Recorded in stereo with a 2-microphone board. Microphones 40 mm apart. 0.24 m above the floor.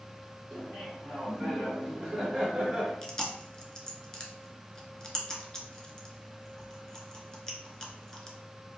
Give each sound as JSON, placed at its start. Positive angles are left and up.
{"t": 0.5, "sound": "laughter", "side_deg": 20, "distance_m": 1.5}
{"t": 3.0, "sound": "chewing", "side_deg": 15, "distance_m": 0.8}